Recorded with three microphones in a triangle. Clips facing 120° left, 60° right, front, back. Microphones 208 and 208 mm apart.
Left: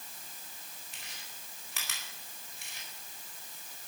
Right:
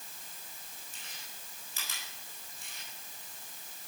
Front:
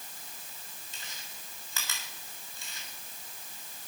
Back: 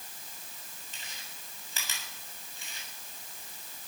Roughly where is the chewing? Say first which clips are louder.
Even, even; left.